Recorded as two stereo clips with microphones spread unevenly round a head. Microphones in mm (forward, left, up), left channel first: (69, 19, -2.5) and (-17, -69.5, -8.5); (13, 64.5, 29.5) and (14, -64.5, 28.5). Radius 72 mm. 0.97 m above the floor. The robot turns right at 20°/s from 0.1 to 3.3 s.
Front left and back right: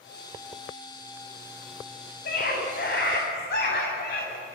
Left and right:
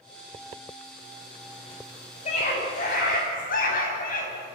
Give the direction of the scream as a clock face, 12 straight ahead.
10 o'clock.